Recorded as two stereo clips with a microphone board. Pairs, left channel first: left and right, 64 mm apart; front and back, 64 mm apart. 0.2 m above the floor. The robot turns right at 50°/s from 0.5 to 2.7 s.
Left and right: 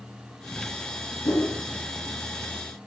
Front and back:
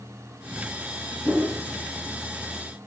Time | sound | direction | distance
1.2 | a whoosh | 110° left | 9.5 m